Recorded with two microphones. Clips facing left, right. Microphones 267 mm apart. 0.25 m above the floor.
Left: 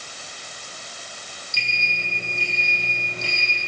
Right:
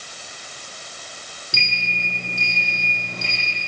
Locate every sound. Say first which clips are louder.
1.5 s a sliding door: right 4 dB; 80° right, 8 m